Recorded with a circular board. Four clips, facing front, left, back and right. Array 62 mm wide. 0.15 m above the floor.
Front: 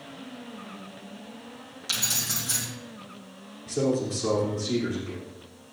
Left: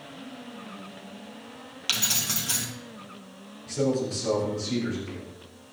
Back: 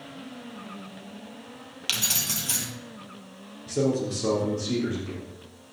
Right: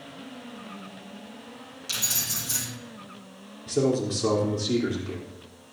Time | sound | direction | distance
1.9 | keys jangling | 140° left | 2.5 m
3.7 | a man speaking | 110° right | 4.5 m